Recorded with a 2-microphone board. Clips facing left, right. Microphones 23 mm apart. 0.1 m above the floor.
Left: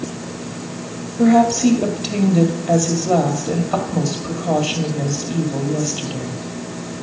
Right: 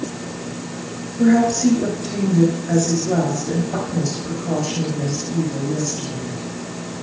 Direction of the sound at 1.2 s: 45° left (ahead or behind).